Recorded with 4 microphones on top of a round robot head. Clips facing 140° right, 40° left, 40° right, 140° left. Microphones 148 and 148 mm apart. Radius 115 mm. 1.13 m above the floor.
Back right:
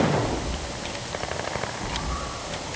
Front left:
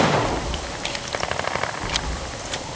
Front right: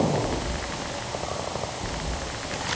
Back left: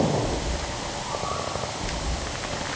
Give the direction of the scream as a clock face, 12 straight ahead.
I don't hear a scream.